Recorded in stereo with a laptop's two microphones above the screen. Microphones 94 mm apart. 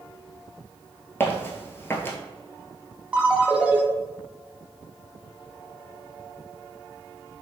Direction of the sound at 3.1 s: 15° right (ahead or behind).